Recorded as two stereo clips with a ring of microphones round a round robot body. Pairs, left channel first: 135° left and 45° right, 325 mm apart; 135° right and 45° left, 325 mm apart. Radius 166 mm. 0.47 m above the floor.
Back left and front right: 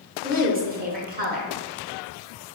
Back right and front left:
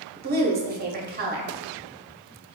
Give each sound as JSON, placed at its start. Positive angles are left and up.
{"t": 0.2, "sound": "a woman speaking", "azimuth_deg": 0, "distance_m": 0.8}